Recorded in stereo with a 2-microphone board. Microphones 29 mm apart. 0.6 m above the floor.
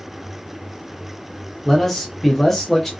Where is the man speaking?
Centre (ahead or behind), 0.7 m; by 2.9 s 10° left (ahead or behind), 0.8 m.